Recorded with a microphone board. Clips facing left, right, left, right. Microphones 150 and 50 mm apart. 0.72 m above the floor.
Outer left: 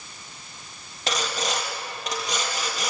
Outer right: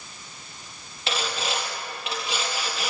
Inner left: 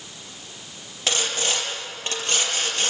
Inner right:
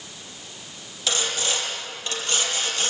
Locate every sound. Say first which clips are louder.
1.1 s sawing: outer left 1 dB, inner left 1 dB; 40° left (ahead or behind), 5 m